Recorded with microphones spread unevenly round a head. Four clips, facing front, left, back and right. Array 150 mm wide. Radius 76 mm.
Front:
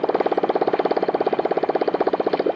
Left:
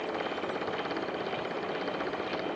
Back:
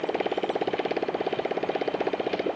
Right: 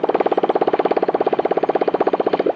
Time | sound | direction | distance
0.0 | a motorcycle | 65° right | ?